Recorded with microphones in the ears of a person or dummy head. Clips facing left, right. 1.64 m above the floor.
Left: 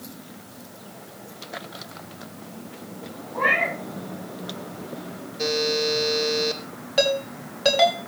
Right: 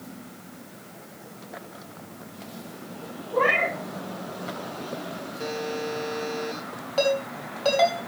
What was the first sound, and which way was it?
A cat meowing, 70° right (ahead or behind).